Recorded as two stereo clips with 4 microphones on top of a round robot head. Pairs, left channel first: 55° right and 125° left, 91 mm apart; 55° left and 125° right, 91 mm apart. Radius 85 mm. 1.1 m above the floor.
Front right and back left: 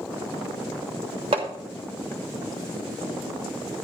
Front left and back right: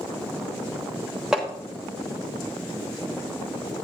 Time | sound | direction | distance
1.3 | hammering | 155° left | 1.1 m